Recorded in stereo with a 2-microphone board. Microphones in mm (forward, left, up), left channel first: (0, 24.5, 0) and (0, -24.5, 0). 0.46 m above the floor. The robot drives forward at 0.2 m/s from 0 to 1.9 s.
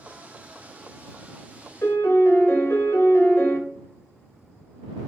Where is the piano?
50° left (ahead or behind), 0.6 m.